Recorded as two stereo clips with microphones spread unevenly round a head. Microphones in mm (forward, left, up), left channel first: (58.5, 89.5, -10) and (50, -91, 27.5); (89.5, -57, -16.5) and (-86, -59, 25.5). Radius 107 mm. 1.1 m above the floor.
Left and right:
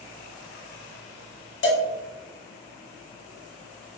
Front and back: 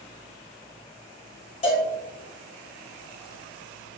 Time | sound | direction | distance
1.6 | a cowbell | 70° left | 0.8 m